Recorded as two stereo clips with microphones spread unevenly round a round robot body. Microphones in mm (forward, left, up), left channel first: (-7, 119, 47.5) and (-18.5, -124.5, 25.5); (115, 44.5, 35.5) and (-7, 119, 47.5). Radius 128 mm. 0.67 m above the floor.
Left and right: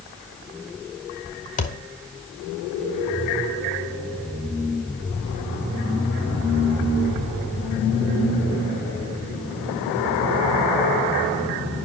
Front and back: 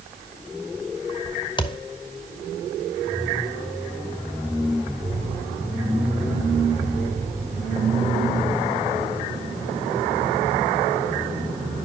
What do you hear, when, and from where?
1.6 s a thud: 25° left, 1.5 m